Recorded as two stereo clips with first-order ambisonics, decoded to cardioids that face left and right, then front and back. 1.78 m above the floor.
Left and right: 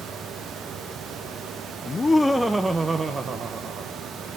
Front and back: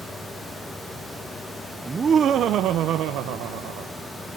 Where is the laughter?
125° left, 0.6 m; by 3.9 s 155° right, 1.5 m.